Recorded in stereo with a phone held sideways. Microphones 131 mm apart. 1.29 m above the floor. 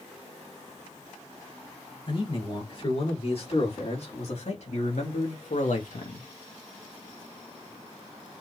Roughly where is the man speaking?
Left.